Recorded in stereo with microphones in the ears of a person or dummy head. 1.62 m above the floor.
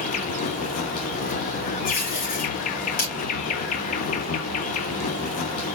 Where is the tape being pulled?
50° left (ahead or behind), 3 m.